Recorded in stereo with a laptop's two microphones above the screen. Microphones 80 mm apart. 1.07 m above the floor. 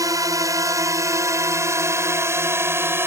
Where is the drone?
45° right (ahead or behind); by 3.1 s 30° right (ahead or behind).